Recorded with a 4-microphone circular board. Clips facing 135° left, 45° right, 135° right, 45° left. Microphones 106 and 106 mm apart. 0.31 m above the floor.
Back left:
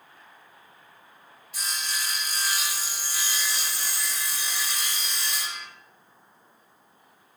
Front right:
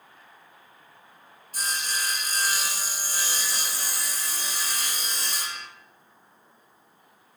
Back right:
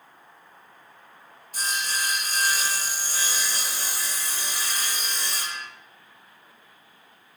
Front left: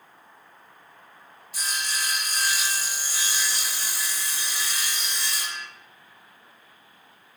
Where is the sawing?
90° right, 1.4 m.